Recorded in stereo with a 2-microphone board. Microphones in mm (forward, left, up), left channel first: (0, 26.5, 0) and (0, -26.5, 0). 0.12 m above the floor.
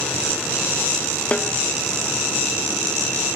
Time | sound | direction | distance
1.3 | a snare drum | 25° left (ahead or behind) | 0.7 m